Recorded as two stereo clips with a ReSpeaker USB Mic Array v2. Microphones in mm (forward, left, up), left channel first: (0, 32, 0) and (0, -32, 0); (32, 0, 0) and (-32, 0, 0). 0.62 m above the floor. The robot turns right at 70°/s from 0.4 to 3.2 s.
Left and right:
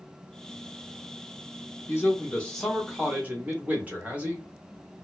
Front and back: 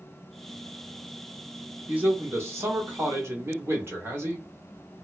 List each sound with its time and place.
1.9 s a man speaking: 120° left, 1.1 m; by 4.5 s 150° right, 1.1 m